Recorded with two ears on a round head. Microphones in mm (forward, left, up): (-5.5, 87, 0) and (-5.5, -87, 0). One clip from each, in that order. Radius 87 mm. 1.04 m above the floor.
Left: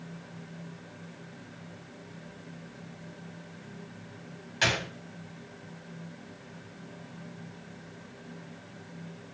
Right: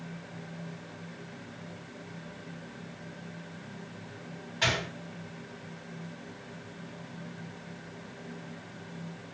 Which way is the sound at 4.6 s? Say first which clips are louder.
Left 1 dB; 65° left (ahead or behind).